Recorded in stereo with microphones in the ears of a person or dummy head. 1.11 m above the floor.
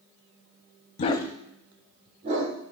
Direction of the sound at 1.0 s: 40° left (ahead or behind).